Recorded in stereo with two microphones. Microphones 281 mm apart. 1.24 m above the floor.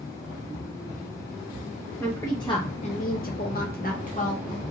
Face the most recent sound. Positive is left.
turn(degrees=25)  # may be behind; listen again after turning